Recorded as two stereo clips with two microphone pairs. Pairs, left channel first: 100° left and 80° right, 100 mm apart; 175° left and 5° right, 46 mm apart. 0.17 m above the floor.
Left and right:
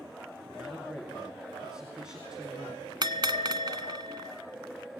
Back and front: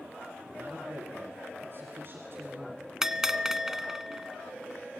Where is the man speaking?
Straight ahead, 2.5 m.